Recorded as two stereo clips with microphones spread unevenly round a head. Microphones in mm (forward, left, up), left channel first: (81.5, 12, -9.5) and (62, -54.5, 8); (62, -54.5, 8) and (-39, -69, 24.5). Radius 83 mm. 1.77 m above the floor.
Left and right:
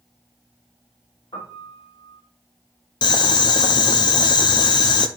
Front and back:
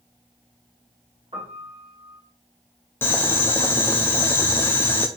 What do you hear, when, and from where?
1.3 s a piano: 130° left, 3.5 m
3.0 s boiling: 85° left, 0.6 m